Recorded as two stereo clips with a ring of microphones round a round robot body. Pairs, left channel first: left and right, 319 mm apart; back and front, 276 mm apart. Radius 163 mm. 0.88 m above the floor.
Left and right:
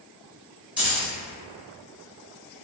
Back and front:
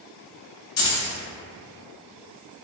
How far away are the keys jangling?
About 1.0 m.